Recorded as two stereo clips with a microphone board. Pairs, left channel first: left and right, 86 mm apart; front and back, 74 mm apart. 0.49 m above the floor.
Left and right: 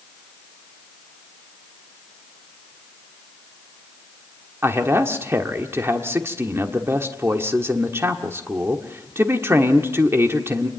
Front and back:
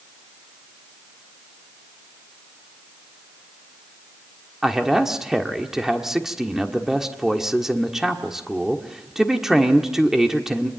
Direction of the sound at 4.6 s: 105° right.